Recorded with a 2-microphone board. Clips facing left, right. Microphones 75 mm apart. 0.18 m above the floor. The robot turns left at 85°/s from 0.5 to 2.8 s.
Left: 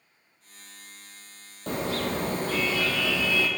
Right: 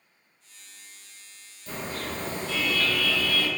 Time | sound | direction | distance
1.7 | a car horn | 115° left | 2.5 m